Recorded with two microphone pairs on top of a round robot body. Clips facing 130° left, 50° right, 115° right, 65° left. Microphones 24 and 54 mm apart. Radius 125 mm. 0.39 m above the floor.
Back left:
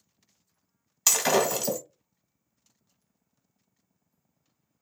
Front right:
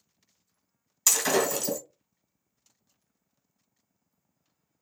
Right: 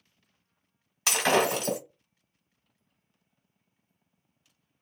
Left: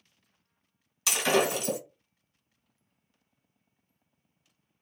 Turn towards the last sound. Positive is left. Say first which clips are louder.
# back left 1 dB, right 1 dB
turn(degrees=-160)